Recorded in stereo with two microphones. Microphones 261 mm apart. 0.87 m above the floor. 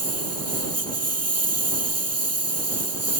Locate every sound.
0.0 s a lawn mower: 70° right (ahead or behind)